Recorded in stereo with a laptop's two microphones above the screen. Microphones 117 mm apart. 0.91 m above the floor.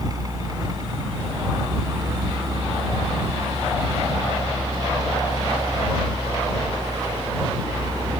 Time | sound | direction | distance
0.0 | a fan | 35° right (ahead or behind) | ?